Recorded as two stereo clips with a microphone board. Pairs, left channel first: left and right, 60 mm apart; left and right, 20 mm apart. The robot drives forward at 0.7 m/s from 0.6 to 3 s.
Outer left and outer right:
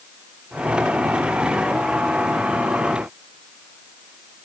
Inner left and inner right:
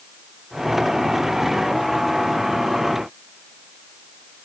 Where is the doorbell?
I don't hear a doorbell.